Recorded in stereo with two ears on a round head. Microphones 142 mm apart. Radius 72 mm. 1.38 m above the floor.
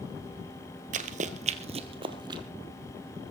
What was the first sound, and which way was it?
Running footsteps, 50° right (ahead or behind).